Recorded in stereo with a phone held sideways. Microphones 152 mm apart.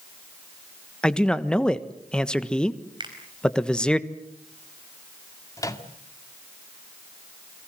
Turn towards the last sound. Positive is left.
turn(degrees=20)  # may be behind; listen again after turning